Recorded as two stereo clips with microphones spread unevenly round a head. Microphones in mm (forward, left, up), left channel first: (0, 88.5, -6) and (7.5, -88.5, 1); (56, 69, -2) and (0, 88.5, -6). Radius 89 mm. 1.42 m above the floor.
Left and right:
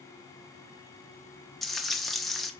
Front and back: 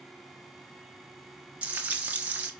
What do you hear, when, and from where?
1.6 s frying: 170° right, 0.9 m